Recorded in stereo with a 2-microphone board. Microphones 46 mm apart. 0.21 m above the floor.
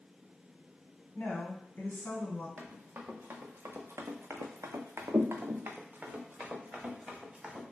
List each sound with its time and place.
1.1 s a woman speaking: 35° left (ahead or behind), 1.5 m; by 2.5 s 40° left (ahead or behind), 1.8 m
2.6 s running footsteps: 30° right (ahead or behind), 1.5 m; by 7.6 s 20° right (ahead or behind), 2.0 m